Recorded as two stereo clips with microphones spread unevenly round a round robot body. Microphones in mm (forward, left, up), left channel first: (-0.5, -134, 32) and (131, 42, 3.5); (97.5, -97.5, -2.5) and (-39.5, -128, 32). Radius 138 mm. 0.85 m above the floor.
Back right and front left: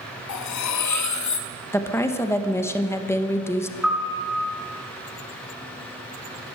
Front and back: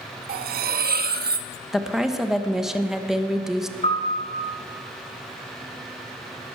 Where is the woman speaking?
50° right, 0.9 m.